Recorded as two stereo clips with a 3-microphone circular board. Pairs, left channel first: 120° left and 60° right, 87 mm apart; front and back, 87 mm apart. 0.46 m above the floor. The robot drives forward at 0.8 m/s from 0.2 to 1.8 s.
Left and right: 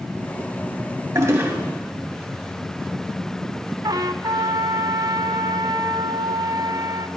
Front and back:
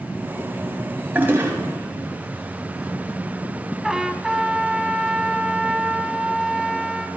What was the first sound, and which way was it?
A toilet flushing, 110° right.